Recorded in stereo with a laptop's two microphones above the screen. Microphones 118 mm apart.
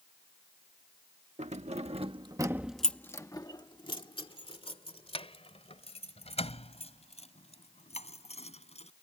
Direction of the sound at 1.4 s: 75° right (ahead or behind).